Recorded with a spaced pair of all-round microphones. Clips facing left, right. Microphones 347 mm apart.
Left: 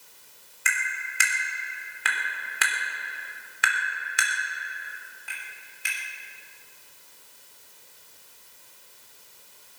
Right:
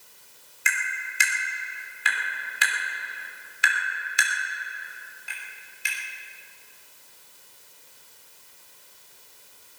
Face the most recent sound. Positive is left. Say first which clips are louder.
# even
turn(degrees=65)  # may be behind; listen again after turning